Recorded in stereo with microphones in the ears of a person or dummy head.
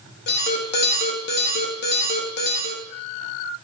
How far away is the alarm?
About 1.3 m.